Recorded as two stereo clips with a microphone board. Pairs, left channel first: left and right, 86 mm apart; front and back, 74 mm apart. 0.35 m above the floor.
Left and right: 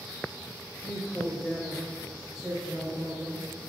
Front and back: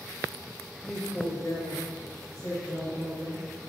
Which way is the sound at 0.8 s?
60° left.